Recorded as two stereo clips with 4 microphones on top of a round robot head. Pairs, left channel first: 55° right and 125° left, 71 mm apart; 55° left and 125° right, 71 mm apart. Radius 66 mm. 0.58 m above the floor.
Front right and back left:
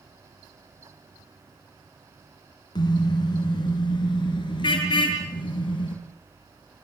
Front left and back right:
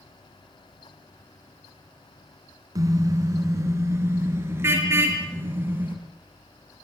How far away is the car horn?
About 3.5 m.